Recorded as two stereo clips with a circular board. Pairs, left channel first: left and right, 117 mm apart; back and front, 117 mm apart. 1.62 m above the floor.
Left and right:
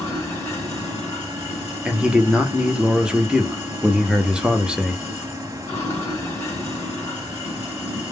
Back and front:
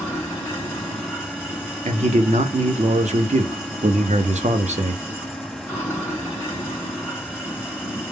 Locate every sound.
0.0 s running water: 125° left, 1.5 m
1.9 s a man speaking: 5° right, 0.6 m